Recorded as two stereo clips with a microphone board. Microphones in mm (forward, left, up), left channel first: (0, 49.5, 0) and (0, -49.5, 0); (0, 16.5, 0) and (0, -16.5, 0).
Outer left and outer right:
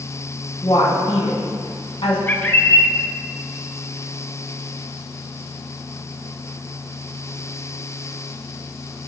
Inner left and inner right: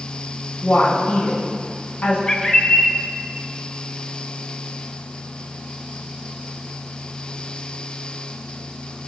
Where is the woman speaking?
70° left (ahead or behind), 3.5 m.